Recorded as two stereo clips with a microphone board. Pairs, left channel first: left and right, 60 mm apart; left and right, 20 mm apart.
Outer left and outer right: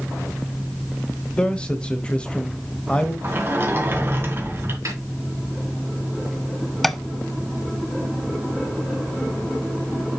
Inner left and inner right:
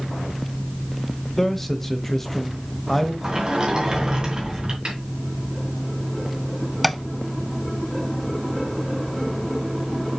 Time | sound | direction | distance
1.4 | a man speaking | 15° left (ahead or behind) | 1.1 m
3.2 | a sliding door | 40° right (ahead or behind) | 2.5 m
4.8 | a snare drum | 60° right (ahead or behind) | 4 m
6.8 | tapping | 5° left (ahead or behind) | 0.5 m